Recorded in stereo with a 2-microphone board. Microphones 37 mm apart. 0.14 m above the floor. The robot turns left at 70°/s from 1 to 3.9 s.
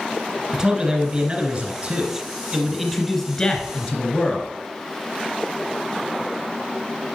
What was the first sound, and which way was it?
A man speaking, 20° right (ahead or behind).